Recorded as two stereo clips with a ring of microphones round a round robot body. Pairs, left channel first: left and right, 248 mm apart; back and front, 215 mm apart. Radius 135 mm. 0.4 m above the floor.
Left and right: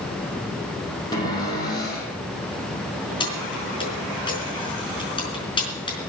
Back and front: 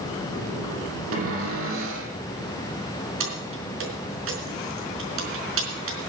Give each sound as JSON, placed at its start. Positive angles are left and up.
{"t": 1.1, "sound": "a cupboard door", "azimuth_deg": 15, "distance_m": 5.5}
{"t": 3.2, "sound": "keys jangling", "azimuth_deg": 20, "distance_m": 4.5}